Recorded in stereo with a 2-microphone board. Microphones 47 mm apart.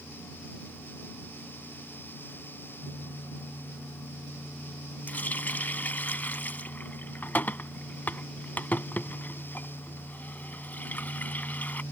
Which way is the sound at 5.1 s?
40° left (ahead or behind).